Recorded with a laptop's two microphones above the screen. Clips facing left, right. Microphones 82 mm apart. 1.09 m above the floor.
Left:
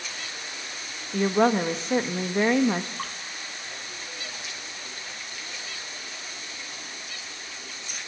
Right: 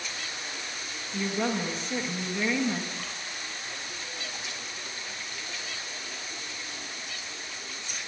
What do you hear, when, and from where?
1.1 s a woman speaking: 50° left (ahead or behind), 1.0 m
3.0 s dripping: 50° left (ahead or behind), 2 m